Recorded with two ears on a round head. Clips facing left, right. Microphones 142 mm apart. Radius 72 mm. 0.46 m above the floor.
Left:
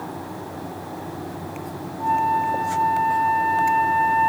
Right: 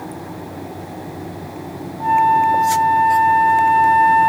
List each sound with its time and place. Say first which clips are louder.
2.0 s a flute: right 7 dB; 65° right (ahead or behind), 2 m